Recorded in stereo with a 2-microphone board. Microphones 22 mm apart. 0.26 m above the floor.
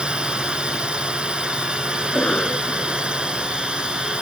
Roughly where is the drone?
Right.